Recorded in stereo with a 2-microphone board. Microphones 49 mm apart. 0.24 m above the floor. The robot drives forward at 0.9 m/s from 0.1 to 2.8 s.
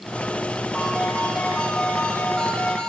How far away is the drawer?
I don't hear a drawer.